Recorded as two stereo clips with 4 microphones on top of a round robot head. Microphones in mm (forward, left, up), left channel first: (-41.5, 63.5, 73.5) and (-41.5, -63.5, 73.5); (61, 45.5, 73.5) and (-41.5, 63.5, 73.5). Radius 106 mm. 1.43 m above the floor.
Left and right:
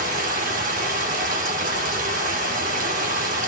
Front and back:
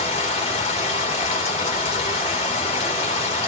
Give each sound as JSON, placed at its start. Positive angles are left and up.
{"t": 0.0, "sound": "running water", "azimuth_deg": -60, "distance_m": 2.0}